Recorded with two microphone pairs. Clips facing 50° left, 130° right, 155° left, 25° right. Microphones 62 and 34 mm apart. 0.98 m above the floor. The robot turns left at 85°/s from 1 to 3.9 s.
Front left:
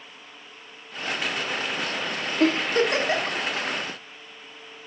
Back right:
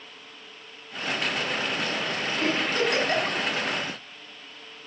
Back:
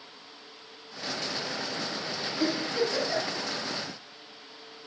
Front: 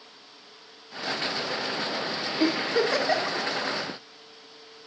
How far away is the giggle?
About 1.2 m.